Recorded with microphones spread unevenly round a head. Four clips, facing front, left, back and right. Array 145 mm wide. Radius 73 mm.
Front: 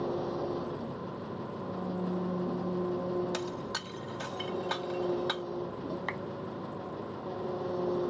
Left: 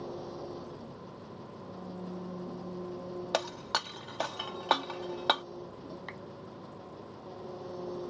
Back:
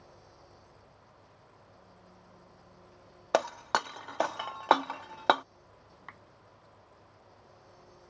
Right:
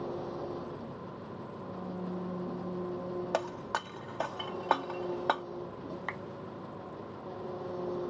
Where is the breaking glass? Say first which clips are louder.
Left 2 dB, back 7 dB; straight behind.